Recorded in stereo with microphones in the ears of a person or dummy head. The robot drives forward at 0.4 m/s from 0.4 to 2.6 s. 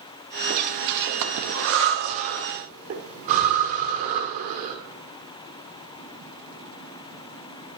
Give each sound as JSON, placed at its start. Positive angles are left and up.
{"t": 0.5, "sound": "breathing", "side_deg": -45, "distance_m": 0.8}